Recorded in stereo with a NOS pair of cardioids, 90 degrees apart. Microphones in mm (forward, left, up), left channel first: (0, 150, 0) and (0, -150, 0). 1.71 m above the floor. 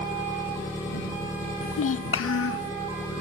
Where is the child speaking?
50° left.